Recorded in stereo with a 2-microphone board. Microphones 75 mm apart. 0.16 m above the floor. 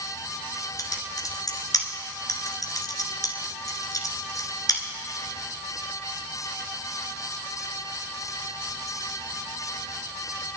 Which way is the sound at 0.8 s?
55° left (ahead or behind).